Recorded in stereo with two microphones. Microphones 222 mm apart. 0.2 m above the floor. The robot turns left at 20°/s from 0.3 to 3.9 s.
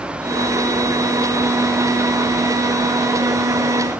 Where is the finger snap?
I don't hear a finger snap.